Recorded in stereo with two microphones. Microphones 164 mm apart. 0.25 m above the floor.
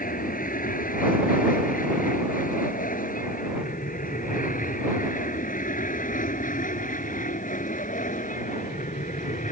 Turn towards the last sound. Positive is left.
turn(degrees=50)  # may be behind; listen again after turning